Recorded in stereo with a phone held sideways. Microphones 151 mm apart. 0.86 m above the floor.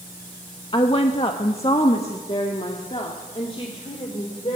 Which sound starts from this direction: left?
A woman speaking, at 0.7 s.